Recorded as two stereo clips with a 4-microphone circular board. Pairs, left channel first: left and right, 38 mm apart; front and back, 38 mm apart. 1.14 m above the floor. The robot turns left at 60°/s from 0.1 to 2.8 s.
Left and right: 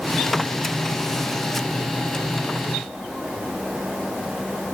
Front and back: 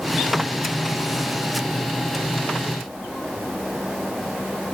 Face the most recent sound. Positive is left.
No sound to turn to.